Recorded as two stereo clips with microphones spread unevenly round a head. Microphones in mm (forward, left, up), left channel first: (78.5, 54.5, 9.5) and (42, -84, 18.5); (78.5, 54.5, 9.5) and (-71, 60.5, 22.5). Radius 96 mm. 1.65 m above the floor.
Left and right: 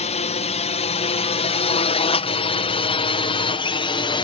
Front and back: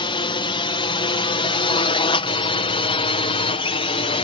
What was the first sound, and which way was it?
A drone, 45° left.